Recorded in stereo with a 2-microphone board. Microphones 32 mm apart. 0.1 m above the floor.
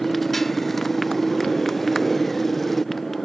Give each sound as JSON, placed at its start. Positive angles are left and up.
{"t": 0.0, "sound": "a motorcycle", "side_deg": 10}